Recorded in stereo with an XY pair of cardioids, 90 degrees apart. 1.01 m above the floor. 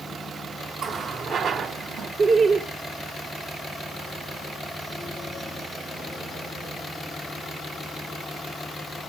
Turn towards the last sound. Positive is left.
turn(degrees=-65)